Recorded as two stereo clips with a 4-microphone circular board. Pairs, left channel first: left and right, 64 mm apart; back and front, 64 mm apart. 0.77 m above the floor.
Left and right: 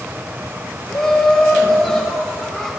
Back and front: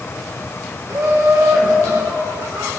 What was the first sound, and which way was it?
Laughter, 10° left.